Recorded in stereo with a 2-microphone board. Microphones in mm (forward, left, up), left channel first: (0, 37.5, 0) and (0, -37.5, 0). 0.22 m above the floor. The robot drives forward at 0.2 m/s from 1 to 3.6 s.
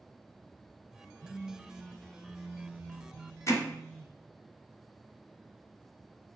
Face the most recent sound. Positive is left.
turn(degrees=45)  # may be behind; listen again after turning